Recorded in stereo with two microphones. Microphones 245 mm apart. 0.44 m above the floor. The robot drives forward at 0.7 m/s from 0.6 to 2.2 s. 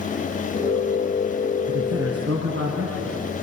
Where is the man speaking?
70° right (ahead or behind), 4.5 m; by 3.1 s 75° right (ahead or behind), 4 m.